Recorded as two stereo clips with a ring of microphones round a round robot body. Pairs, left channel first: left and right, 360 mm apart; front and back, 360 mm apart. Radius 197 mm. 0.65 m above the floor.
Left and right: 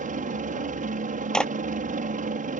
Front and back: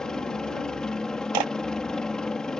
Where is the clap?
Straight behind.